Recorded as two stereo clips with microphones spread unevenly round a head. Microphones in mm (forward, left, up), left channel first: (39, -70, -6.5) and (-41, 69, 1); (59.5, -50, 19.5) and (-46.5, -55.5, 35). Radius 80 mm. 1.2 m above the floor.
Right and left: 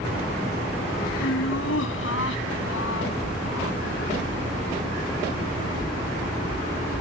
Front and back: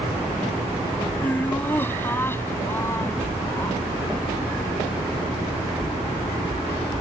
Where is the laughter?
70° right; by 3.8 s 60° right.